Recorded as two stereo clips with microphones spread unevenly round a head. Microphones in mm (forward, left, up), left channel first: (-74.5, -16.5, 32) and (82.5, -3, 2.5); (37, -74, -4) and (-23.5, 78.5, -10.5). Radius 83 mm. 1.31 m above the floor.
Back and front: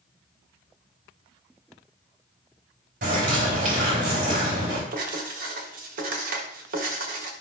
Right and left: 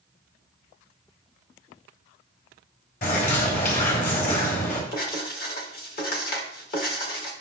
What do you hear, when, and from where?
3.0 s a bird: 35° right, 3.5 m
4.9 s writing: 30° right, 1.5 m